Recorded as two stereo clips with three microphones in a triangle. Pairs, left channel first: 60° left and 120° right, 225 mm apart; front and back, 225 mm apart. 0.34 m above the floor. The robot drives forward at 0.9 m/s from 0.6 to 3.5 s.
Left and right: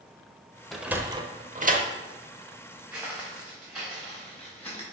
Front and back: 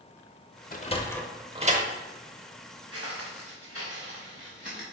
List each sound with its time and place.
0.7 s a sliding door: 30° right, 0.8 m; by 1.9 s 150° right, 0.8 m
2.9 s footsteps: 155° left, 2.5 m; by 4.8 s 140° left, 3 m